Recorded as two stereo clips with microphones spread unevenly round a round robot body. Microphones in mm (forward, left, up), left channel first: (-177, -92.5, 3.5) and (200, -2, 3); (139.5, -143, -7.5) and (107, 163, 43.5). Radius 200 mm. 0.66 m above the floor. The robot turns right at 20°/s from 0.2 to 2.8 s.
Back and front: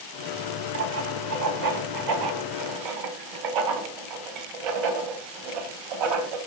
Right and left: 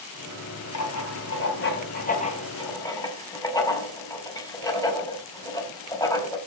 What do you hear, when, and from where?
0.7 s writing: 45° right, 3 m; by 6.4 s 5° right, 3 m